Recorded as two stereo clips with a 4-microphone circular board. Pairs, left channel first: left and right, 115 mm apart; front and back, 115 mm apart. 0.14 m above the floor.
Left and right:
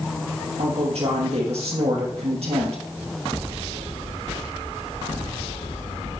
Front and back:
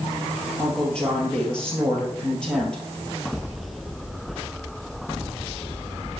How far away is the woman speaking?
About 2.5 m.